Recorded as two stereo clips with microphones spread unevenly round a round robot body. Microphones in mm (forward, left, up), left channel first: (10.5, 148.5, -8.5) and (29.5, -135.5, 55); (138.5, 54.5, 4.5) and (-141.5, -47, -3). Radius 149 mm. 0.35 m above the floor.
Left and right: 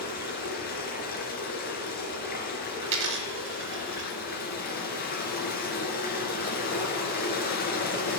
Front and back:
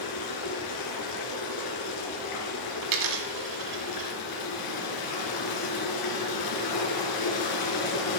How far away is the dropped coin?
About 1.6 m.